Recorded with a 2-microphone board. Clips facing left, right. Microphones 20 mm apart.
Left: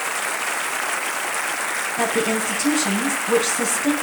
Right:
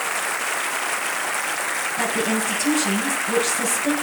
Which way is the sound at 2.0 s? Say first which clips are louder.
Left 2 dB; 40° left (ahead or behind).